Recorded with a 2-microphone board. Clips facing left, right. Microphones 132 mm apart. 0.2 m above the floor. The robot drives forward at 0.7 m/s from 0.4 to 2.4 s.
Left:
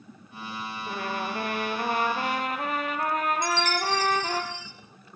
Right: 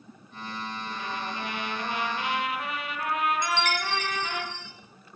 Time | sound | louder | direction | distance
0.9 | a trumpet | left 6 dB | 55° left (ahead or behind) | 3 m
3.4 | a chime | left 2 dB | 55° right (ahead or behind) | 2.5 m